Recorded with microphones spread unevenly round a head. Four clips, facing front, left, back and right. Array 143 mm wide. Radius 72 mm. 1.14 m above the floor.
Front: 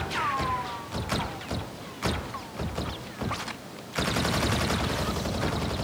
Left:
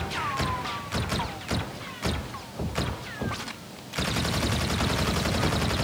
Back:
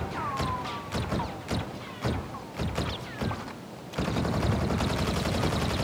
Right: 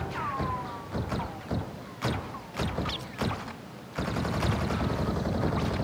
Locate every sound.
Only background noise.